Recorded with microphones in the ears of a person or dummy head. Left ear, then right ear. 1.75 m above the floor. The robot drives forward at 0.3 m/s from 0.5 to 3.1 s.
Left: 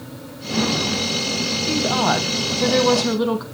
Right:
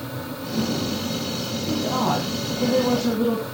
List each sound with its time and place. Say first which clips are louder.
1.7 s a woman speaking: left 3 dB; 65° left (ahead or behind), 1.3 m